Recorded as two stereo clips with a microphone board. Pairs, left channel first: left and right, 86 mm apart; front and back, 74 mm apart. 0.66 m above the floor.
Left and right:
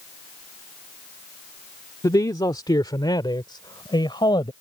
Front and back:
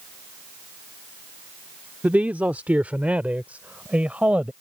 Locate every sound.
2.0 s a man speaking: 115° left; by 4.5 s 110° left